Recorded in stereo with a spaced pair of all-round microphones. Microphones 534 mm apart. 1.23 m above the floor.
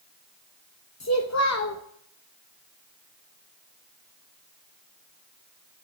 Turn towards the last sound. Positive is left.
turn(degrees=30)  # may be behind; listen again after turning